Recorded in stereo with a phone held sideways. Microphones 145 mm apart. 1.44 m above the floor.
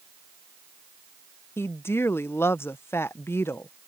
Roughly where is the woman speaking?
Centre.